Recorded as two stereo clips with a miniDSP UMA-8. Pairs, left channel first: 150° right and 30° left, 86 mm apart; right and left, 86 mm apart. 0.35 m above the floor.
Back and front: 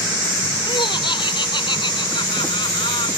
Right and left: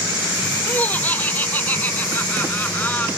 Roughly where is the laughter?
Behind.